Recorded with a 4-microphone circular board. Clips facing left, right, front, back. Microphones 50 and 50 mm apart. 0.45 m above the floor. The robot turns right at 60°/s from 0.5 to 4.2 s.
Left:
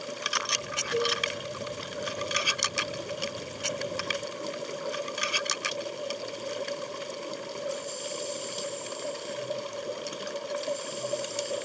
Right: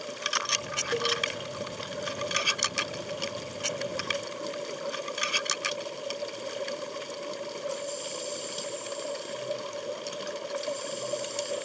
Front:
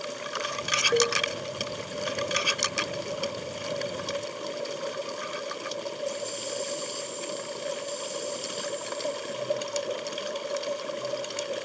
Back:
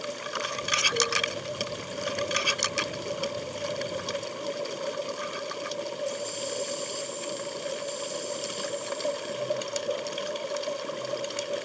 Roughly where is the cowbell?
Ahead right.